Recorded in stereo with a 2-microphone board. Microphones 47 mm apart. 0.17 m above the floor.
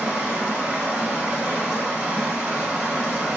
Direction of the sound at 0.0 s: 20° right (ahead or behind).